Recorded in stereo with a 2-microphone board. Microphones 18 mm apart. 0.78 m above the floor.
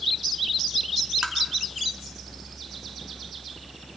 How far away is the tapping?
About 2 m.